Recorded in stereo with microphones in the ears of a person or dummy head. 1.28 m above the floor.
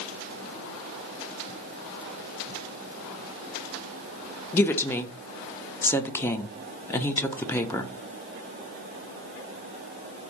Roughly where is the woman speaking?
Centre.